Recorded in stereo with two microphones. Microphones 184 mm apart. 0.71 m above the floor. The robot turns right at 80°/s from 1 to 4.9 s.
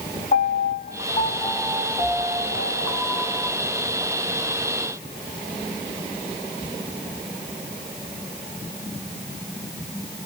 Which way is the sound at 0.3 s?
120° left.